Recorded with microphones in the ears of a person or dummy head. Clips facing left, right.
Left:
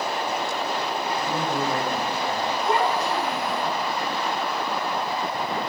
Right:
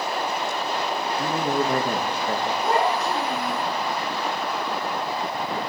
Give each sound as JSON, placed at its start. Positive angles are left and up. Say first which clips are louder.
{"t": 1.2, "sound": "a man speaking", "louder": "right 4 dB", "side_deg": -50, "distance_m": 1.4}
{"t": 2.6, "sound": "a child speaking", "louder": "even", "side_deg": -50, "distance_m": 6.0}